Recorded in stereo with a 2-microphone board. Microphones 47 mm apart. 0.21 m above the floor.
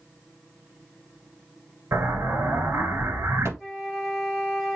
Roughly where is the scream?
I don't hear a scream.